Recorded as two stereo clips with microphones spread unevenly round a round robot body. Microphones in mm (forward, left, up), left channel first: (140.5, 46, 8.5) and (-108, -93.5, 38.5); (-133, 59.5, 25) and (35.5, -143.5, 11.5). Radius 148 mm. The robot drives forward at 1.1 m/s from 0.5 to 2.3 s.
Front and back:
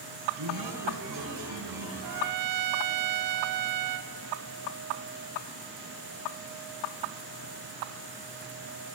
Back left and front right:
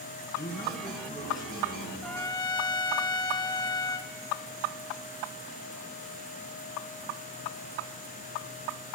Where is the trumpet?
145° right, 0.5 m; by 4.1 s 155° right, 0.8 m.